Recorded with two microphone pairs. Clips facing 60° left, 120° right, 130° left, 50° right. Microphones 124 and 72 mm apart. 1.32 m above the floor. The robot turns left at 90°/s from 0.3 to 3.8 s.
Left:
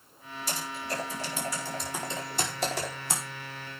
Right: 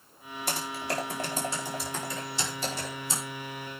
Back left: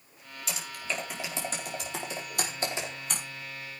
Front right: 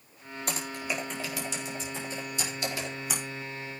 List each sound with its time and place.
0.5 s typing on a keyboard: 90° right, 4.5 m; by 3.2 s 25° left, 4.5 m